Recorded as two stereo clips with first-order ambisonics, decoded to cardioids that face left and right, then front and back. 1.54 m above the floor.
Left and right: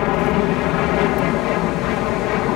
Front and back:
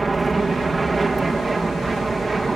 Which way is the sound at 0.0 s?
100° left.